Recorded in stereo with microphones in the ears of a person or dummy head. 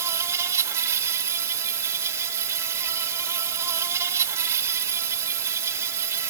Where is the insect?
15° right (ahead or behind).